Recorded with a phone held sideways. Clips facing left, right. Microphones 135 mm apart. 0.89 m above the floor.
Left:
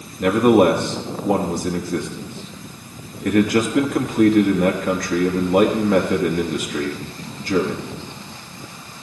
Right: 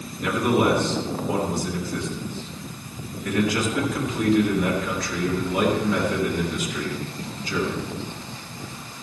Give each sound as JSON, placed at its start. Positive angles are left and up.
{"t": 0.2, "sound": "a man speaking", "side_deg": 55, "distance_m": 1.3}